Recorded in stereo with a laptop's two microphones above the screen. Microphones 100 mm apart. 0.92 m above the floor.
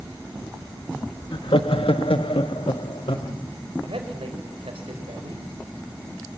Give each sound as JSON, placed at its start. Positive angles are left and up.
{"t": 1.3, "sound": "laughter", "side_deg": 60, "distance_m": 1.1}
{"t": 3.8, "sound": "a man speaking", "side_deg": -80, "distance_m": 5.5}